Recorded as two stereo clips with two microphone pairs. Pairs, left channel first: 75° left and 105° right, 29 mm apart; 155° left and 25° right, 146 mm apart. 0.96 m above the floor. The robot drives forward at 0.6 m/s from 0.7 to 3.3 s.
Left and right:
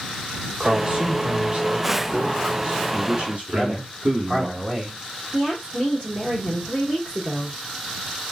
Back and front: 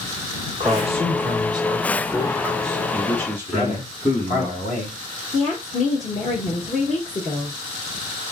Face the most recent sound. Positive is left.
turn(degrees=180)